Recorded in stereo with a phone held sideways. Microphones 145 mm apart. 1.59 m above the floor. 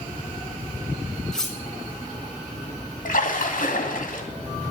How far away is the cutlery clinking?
About 1.9 m.